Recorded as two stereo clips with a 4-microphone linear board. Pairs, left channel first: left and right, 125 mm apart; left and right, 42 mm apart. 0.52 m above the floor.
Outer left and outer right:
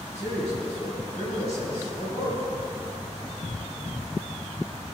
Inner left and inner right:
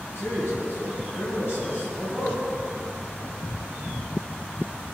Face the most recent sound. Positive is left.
turn(degrees=65)  # may be behind; listen again after turning